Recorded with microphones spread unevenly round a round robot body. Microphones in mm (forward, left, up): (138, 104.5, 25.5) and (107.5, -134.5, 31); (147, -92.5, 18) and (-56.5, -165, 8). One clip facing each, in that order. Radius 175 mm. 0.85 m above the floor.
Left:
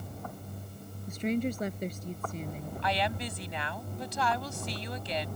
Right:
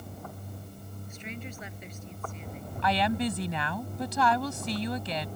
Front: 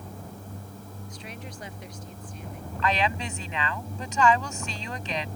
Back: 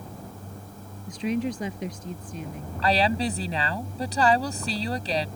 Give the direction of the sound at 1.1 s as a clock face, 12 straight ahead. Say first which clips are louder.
Left 13 dB, back 19 dB; 7 o'clock.